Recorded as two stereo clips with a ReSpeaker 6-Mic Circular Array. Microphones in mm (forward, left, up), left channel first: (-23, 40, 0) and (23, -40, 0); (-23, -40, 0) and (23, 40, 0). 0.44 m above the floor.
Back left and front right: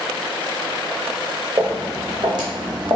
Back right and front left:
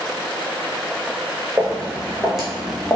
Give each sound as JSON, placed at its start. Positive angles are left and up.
{"t": 1.6, "sound": "footsteps", "azimuth_deg": -15, "distance_m": 1.7}